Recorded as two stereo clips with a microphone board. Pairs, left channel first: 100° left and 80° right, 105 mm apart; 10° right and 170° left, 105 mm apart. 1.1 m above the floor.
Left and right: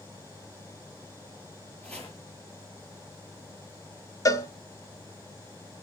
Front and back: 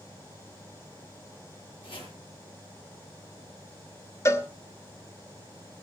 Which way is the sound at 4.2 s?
45° left.